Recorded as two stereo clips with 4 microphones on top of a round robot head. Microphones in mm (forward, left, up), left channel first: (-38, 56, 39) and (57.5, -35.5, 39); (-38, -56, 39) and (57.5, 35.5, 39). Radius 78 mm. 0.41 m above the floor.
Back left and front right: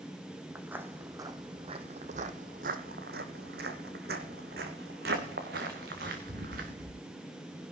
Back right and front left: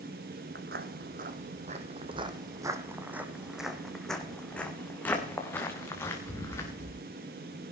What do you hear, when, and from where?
0.6 s footsteps: 35° left, 1.4 m; by 7.0 s 70° right, 3.5 m